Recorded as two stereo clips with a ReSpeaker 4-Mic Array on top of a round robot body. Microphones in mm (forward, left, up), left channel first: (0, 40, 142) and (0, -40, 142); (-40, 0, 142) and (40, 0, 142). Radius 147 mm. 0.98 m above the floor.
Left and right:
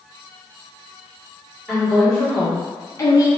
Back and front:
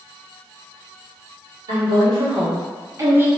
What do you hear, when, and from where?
1.7 s a woman speaking: 10° left, 1.6 m; by 3.3 s 65° left, 1.0 m